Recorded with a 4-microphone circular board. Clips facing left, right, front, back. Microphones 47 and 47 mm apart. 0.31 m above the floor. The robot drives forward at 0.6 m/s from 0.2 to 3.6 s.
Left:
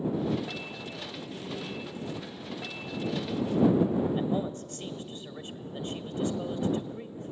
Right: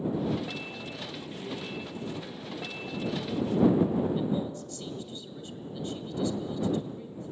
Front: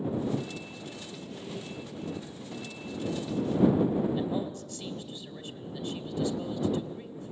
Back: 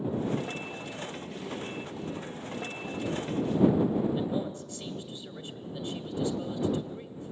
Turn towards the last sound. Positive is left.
turn(degrees=125)